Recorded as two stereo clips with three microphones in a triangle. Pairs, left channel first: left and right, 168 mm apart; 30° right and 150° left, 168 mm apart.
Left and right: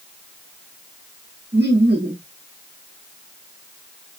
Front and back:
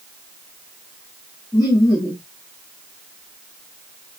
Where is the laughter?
100° right, 1.8 m.